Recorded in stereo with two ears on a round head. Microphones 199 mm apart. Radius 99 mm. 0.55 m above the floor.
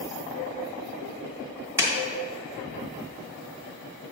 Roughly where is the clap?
Centre.